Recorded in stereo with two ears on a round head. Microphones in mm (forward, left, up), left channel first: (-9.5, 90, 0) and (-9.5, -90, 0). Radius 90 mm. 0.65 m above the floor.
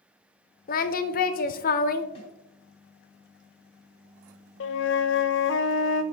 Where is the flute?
65° left (ahead or behind), 0.7 m.